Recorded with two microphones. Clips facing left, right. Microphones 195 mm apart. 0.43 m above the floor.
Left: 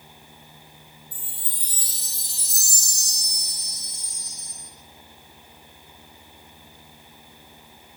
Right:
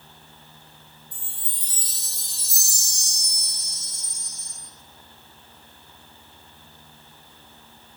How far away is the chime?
About 4.5 m.